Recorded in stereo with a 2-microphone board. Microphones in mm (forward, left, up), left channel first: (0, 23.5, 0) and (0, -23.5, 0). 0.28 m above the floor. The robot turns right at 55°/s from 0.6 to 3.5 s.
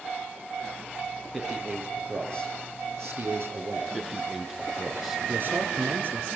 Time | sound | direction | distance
1.3 | a man speaking | 175° right | 7 m
3.9 | a man speaking | 5° right (ahead or behind) | 3.5 m
5.3 | a man speaking | 50° right (ahead or behind) | 4 m